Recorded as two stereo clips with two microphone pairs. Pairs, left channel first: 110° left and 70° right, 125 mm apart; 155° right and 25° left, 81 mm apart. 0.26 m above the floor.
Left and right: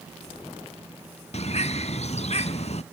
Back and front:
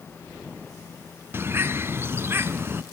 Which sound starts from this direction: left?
A bird, at 1.3 s.